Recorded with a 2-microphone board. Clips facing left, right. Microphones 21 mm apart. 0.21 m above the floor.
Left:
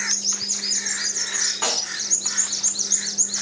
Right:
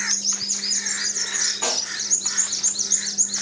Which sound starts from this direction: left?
A snare drum, at 1.6 s.